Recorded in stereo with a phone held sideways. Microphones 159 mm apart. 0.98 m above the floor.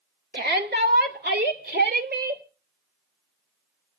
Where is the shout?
80° right, 2.5 m.